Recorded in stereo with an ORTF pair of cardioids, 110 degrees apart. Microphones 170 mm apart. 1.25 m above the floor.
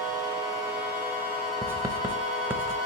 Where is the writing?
15° right, 0.8 m.